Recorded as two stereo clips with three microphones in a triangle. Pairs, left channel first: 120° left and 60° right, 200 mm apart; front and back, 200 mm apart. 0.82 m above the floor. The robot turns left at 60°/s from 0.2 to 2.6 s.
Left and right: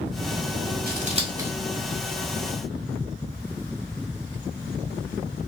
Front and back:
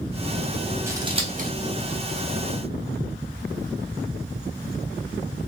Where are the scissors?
105° right, 0.8 m; by 1.5 s 140° right, 0.8 m.